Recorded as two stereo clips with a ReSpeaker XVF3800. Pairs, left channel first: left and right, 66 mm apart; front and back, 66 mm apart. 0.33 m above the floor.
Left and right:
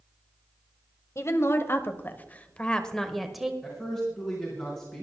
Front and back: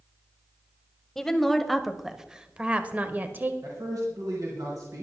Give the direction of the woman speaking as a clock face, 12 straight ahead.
9 o'clock.